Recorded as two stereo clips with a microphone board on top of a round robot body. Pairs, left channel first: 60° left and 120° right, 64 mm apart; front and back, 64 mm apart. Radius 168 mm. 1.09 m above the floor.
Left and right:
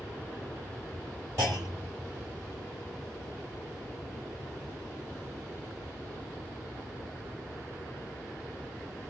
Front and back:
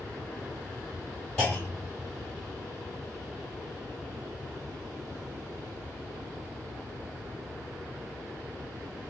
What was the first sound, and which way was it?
A clunk, 65° right.